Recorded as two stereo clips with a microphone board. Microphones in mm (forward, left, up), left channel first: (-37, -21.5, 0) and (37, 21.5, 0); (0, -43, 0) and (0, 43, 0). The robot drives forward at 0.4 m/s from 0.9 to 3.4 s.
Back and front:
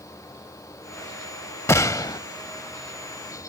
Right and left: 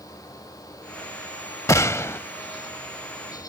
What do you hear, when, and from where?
1.7 s a gunshot: 110° right; by 2.2 s 135° right